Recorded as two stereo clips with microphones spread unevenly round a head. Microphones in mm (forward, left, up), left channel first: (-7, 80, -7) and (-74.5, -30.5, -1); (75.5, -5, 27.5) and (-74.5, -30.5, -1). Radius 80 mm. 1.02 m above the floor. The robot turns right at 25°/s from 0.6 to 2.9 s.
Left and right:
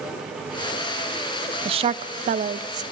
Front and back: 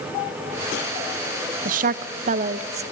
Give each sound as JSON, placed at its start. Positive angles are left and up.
{"t": 1.6, "sound": "a woman speaking", "azimuth_deg": -165, "distance_m": 0.8}